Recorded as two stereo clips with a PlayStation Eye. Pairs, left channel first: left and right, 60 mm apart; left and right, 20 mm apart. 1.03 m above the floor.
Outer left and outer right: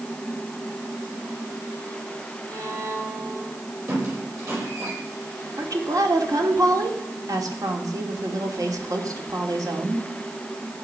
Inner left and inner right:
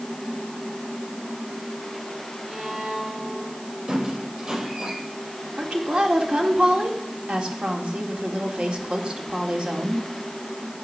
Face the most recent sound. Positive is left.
turn(degrees=-75)  # may be behind; listen again after turning